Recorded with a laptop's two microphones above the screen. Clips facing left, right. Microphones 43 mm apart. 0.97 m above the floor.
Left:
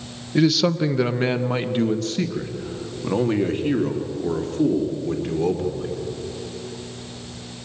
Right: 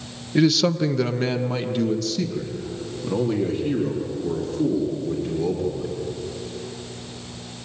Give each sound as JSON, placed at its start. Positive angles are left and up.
{"t": 0.3, "sound": "a man speaking", "side_deg": -5, "distance_m": 0.8}